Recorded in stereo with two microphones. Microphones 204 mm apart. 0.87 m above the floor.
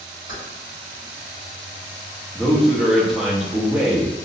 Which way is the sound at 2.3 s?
Centre (ahead or behind).